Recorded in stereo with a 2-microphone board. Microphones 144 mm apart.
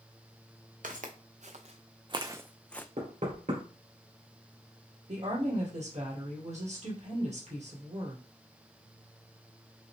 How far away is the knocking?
About 2 m.